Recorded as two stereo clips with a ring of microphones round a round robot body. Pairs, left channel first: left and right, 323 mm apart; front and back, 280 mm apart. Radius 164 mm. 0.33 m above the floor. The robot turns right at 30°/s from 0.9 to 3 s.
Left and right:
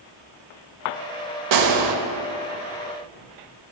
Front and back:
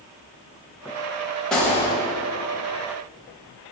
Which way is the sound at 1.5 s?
90° right.